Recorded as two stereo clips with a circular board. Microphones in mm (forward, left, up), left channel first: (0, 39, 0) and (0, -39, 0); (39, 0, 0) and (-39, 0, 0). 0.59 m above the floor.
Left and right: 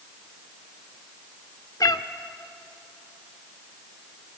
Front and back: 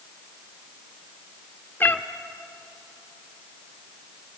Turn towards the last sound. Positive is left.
turn(degrees=60)